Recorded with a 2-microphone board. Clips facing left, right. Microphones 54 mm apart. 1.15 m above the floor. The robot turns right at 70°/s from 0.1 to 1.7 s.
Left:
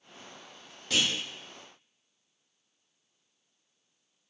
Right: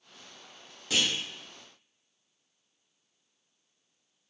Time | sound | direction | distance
0.9 | a clunk | 5° right (ahead or behind) | 0.9 m